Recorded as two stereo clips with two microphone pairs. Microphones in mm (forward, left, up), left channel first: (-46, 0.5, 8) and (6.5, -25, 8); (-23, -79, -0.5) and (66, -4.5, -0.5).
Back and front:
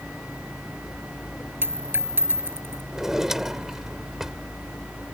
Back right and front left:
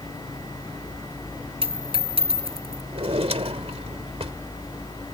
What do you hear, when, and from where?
1.6 s a dropped coin: 15° left
2.9 s a drawer: 55° left